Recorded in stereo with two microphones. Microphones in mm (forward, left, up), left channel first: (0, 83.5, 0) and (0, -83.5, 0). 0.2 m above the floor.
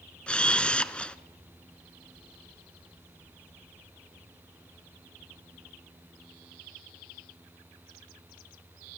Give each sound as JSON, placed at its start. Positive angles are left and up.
{"t": 0.3, "sound": "a camera shutter", "side_deg": 5, "distance_m": 0.8}